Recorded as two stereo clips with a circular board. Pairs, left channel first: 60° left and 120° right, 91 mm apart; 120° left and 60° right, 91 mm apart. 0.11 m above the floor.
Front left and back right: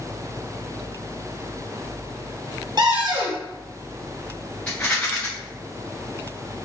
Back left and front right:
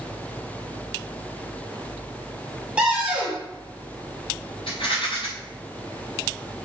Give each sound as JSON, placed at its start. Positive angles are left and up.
{"t": 2.8, "sound": "a cupboard door", "azimuth_deg": -135, "distance_m": 2.5}
{"t": 4.7, "sound": "a rattle", "azimuth_deg": 135, "distance_m": 3.0}